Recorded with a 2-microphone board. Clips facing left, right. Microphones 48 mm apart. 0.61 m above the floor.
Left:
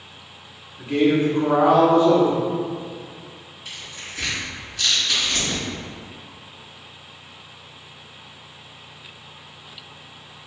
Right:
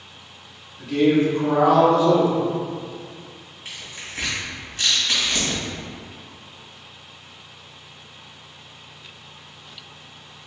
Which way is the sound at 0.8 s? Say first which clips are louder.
Right 1 dB; 25° left (ahead or behind).